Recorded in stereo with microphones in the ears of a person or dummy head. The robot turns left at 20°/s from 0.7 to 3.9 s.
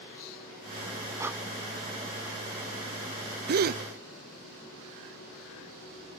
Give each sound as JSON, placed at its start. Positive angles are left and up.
{"t": 1.2, "sound": "breathing", "side_deg": -15, "distance_m": 0.9}
{"t": 3.5, "sound": "a gasp", "side_deg": -55, "distance_m": 0.7}